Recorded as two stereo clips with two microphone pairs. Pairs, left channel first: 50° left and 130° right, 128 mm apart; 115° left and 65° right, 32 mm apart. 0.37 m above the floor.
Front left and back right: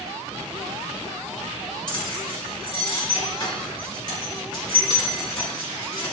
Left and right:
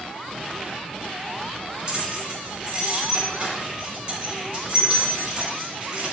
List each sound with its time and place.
1.9 s keys jangling: straight ahead, 3 m